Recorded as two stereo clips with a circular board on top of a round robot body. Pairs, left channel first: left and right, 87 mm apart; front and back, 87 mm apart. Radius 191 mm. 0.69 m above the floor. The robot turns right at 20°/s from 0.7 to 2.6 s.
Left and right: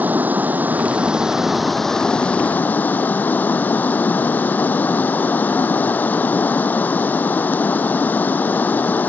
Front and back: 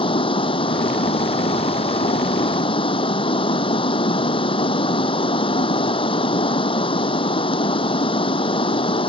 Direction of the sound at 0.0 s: 20° right.